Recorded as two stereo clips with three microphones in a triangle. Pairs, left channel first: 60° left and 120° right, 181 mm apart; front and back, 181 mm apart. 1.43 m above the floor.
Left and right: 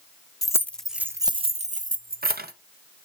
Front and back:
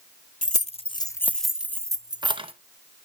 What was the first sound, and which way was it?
Keys jangling, 5° right.